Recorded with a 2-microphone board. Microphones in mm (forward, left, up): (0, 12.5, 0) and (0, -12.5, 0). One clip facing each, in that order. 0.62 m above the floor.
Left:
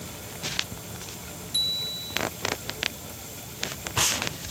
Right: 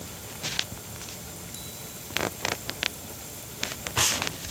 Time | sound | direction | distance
1.5 | a bicycle bell | 80° left | ?